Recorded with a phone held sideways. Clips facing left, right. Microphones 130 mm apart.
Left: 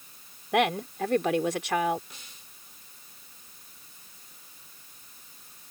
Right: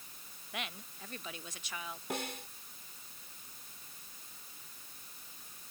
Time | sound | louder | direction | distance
0.5 | a woman speaking | left 20 dB | 85° left | ?
2.1 | a snare drum | right 15 dB | 70° right (ahead or behind) | ?